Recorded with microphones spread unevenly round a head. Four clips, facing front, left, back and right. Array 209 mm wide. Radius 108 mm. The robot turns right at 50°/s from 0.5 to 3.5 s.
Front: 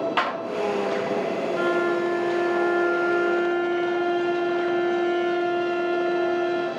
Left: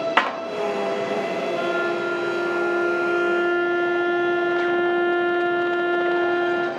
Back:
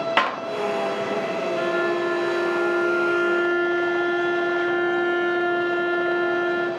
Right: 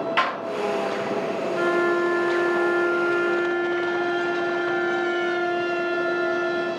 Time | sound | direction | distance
0.2 | a clap | 140° left | 0.7 m
1.6 | a violin | 45° right | 0.6 m